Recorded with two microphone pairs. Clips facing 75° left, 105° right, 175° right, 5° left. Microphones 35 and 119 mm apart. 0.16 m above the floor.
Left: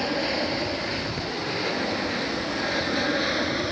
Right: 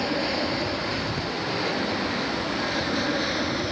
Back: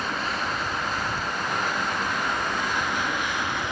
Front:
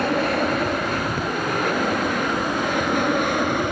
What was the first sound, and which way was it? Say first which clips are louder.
An aircraft: even, front 9 dB; 10° right.